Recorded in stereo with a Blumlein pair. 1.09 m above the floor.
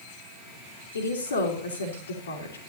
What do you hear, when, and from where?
0.9 s a woman speaking: 70° left, 3.5 m